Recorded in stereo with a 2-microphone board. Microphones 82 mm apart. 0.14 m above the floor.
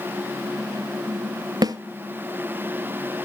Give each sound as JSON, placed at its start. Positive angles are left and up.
{"t": 1.6, "sound": "a snare drum", "side_deg": -55, "distance_m": 0.9}